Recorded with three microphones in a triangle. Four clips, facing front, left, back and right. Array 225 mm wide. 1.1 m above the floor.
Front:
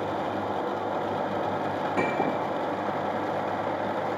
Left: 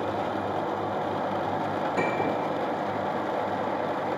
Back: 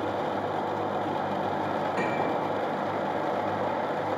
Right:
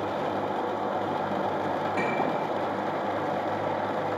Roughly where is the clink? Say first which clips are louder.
Left 2 dB, front 3 dB; ahead.